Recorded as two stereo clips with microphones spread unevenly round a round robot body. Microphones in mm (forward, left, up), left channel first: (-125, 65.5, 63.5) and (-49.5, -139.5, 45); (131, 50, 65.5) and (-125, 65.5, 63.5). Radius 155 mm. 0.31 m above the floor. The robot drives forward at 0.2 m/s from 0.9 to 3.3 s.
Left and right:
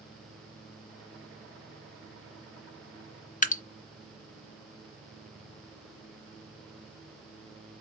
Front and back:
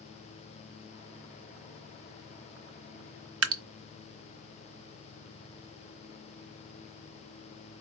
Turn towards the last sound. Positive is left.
turn(degrees=165)